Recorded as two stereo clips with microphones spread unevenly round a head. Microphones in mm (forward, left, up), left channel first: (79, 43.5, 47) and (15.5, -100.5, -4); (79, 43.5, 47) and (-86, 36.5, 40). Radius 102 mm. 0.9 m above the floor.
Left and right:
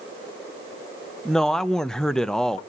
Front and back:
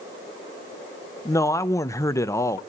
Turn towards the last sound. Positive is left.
turn(degrees=-55)